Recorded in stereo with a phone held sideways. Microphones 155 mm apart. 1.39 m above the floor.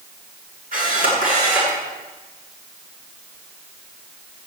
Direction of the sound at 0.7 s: 65° right (ahead or behind).